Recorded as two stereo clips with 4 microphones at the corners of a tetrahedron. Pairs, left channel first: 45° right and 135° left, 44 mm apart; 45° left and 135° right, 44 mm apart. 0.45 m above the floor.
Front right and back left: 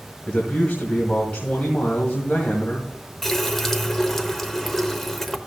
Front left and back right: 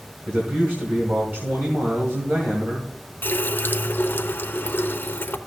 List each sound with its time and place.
0.3 s a man speaking: 105° right, 2 m
3.2 s a running tap: 35° left, 0.8 m